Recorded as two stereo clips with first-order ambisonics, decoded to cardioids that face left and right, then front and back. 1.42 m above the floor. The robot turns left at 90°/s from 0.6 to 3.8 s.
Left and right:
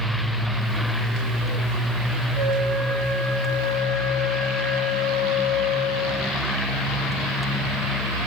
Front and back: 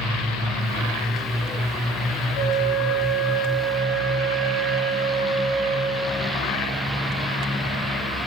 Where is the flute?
15° right, 7.5 m; by 6.3 s 145° right, 7.5 m.